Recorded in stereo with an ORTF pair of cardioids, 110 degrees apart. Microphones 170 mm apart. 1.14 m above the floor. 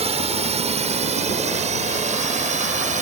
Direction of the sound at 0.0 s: 40° right.